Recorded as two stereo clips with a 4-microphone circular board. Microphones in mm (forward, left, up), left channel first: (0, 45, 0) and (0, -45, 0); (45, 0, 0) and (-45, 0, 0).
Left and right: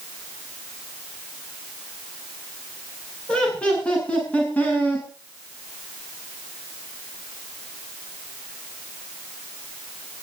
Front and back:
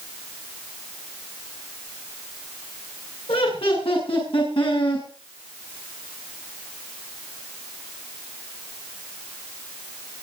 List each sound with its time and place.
3.3 s laughter: 10° left, 9.5 m; by 5.1 s 20° left, 8 m